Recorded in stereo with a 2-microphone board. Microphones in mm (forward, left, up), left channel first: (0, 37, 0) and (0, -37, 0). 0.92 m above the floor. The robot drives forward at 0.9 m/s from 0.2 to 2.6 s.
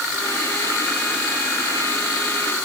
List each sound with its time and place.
Only background noise.